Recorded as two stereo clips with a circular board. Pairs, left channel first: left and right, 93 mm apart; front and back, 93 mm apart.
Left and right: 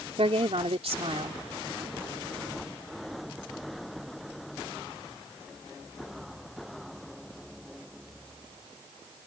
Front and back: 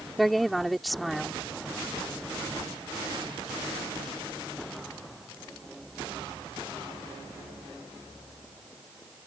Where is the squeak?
No squeak in this recording.